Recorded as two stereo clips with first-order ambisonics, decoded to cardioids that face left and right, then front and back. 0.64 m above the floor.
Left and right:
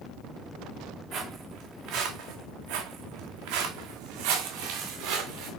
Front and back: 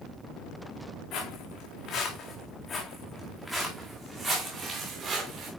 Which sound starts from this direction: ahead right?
Footsteps, at 1.1 s.